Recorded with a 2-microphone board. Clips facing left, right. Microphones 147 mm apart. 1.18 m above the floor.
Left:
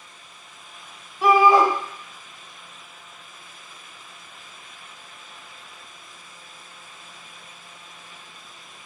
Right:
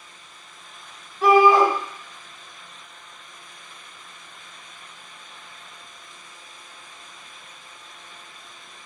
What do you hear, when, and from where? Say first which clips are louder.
1.2 s a shout: right 1 dB; 10° left (ahead or behind), 2 m